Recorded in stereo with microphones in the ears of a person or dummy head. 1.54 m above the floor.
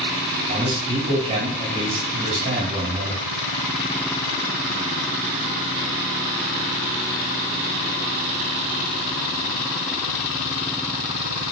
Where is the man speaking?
40° right (ahead or behind), 2 m.